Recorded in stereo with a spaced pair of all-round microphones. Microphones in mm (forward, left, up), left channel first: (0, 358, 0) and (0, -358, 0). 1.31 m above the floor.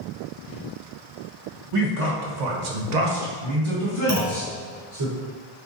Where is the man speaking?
45° right (ahead or behind), 1.3 m; by 5.1 s 10° right (ahead or behind), 2.5 m.